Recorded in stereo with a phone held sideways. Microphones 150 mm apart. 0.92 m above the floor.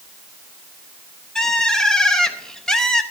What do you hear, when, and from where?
1.4 s a bird: 5° left (ahead or behind), 0.8 m